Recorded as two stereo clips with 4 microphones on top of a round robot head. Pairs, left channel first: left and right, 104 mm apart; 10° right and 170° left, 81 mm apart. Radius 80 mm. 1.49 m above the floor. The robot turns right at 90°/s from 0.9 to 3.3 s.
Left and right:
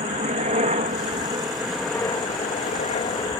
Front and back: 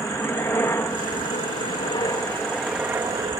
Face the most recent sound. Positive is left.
turn(degrees=135)